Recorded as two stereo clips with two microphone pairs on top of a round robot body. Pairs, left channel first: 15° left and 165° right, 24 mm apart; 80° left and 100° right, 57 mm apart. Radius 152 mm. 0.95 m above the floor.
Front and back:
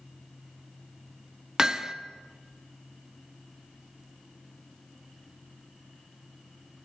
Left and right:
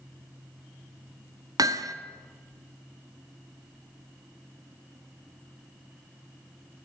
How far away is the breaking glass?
No breaking glass in this recording.